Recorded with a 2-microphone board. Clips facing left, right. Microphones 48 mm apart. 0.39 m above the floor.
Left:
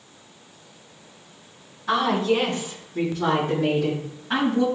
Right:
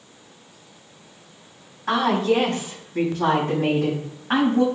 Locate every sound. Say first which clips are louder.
1.9 s a woman speaking: right 1 dB; 65° right (ahead or behind), 3 m; by 4.6 s 45° right (ahead or behind), 3.5 m